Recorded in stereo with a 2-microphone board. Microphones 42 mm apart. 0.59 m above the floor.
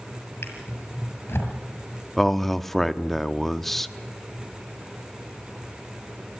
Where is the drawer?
70° left (ahead or behind), 6.5 m.